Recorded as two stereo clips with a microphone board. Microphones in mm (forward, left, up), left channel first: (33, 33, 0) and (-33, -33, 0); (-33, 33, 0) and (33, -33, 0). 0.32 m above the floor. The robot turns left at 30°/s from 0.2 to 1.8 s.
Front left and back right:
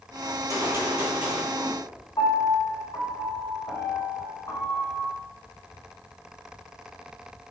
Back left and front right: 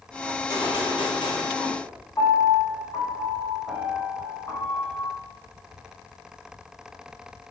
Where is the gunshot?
175° left, 1.4 m; by 1.8 s 130° left, 1.4 m.